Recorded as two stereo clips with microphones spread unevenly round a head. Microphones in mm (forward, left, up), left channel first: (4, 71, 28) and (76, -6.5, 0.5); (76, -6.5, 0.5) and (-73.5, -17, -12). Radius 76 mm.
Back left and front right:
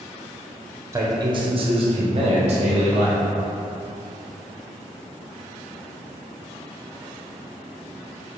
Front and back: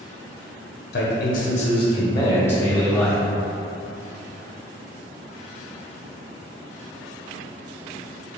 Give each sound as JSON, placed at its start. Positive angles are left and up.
{"t": 0.9, "sound": "a man speaking", "azimuth_deg": 0, "distance_m": 0.9}